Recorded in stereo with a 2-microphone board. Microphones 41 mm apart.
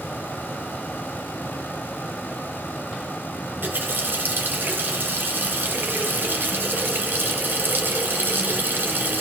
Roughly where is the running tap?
Right.